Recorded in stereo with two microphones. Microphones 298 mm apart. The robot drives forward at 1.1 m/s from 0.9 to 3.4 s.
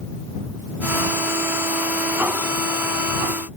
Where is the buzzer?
I don't hear a buzzer.